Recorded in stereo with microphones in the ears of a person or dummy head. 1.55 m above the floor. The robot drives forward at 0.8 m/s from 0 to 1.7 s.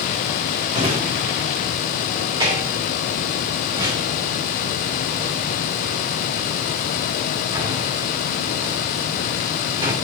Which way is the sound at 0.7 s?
30° right (ahead or behind).